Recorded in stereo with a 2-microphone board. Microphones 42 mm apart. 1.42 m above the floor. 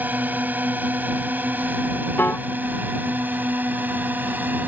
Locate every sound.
0.0 s a drone: 45° right (ahead or behind)
2.2 s a piano: 55° left (ahead or behind)